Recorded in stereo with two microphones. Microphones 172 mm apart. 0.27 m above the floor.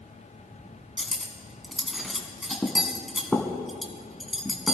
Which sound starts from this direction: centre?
Cutlery clinking, at 1.0 s.